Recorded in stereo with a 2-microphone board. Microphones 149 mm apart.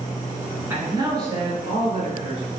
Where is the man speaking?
15° right (ahead or behind), 1.8 m; by 2.5 s 55° right (ahead or behind), 2.5 m.